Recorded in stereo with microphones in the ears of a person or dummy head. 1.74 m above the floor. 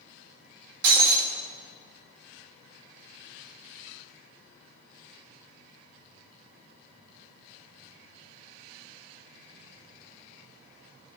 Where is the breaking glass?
60° right (ahead or behind), 1.9 m.